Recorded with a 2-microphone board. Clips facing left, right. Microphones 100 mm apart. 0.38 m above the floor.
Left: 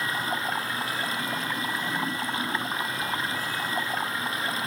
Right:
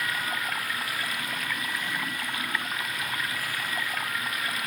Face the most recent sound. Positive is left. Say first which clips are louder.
# left 2 dB
turn(degrees=25)  # may be behind; listen again after turning